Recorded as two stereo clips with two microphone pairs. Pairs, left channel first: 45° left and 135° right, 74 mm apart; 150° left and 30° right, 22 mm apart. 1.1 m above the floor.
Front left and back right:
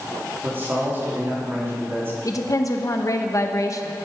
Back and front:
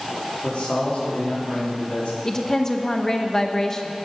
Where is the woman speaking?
85° left, 0.8 m.